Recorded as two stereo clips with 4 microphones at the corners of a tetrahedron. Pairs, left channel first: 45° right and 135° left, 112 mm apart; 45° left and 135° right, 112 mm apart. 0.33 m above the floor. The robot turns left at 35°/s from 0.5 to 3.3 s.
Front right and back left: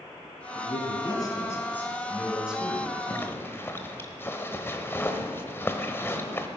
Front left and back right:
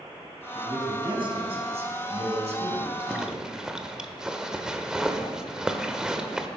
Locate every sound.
0.6 s a man speaking: 75° right, 3 m; by 3.3 s 170° right, 3 m
3.1 s a zipper: 55° right, 1.1 m; by 6.5 s 60° right, 1.1 m